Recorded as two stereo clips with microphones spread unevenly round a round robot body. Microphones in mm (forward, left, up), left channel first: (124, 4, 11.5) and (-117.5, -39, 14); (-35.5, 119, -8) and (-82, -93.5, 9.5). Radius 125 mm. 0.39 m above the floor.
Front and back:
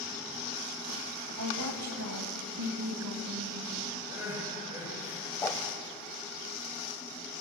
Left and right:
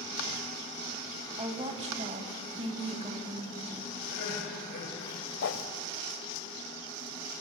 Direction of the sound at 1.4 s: 165° right.